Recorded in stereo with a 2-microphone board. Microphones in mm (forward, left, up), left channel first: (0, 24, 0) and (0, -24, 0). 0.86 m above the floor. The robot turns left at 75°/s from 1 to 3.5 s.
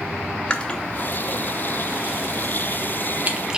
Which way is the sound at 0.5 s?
20° left (ahead or behind).